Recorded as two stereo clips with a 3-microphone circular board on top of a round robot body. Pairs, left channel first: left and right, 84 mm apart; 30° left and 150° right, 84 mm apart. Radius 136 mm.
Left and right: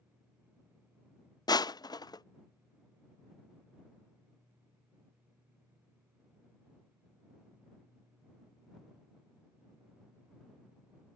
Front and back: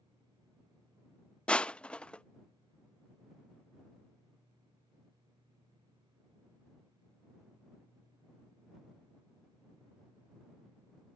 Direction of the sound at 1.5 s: 105° left.